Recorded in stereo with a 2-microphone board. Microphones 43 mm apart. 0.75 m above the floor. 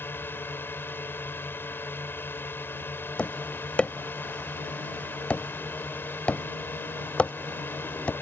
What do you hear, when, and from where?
0.0 s a drone: 55° left (ahead or behind)
3.2 s tapping: 30° left (ahead or behind)